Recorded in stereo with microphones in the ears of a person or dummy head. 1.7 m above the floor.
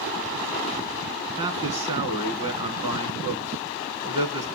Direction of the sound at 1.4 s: 30° right (ahead or behind).